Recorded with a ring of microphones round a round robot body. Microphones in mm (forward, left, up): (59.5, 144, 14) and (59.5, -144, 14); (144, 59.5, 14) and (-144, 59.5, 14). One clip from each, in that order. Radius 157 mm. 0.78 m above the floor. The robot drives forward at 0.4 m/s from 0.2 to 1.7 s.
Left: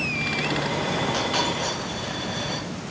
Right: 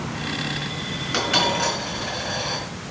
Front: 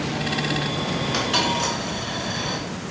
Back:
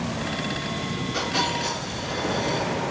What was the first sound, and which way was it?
A dropped coin, 55° right.